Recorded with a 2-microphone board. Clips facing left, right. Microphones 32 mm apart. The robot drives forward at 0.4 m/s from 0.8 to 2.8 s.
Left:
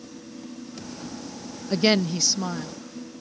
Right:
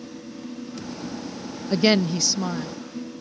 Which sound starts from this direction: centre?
A woman speaking, at 1.7 s.